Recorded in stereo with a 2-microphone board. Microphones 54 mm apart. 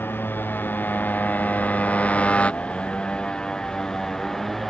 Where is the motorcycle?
40° left (ahead or behind); by 4.7 s 5° left (ahead or behind).